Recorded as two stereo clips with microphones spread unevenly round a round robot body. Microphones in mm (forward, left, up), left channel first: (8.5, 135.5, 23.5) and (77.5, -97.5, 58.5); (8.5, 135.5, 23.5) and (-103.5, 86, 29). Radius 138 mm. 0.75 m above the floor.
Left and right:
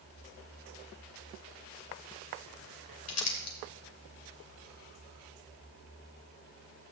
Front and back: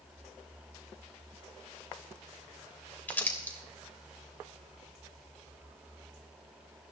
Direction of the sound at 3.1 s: 100° left.